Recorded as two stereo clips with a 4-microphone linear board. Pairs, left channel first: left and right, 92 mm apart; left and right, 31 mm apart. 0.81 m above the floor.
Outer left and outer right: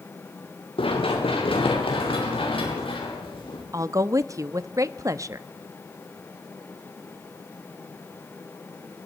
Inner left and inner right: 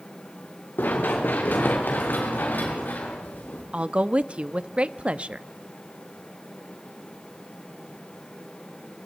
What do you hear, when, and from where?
0.8 s running footsteps: 80° left, 5.5 m
3.7 s a woman speaking: 35° right (ahead or behind), 0.8 m